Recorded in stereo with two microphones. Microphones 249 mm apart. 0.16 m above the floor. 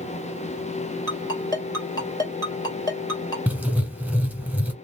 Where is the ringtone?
15° left (ahead or behind), 2.5 m.